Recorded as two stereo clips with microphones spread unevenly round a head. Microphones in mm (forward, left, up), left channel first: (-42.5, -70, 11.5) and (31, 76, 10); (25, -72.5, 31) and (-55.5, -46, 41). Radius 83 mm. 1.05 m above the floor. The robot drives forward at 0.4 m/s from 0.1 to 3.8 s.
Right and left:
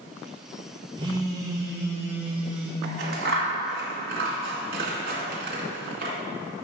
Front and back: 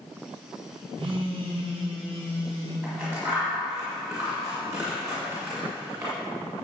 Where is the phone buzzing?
125° left, 1.3 m; by 2.7 s 145° left, 1.8 m.